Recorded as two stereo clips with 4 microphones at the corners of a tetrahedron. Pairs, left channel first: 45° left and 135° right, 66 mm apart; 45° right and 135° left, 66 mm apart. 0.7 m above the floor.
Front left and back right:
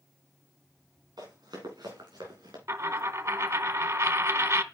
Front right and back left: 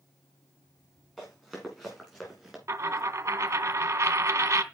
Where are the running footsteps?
130° right, 7.5 m; by 2.6 s 135° right, 6 m.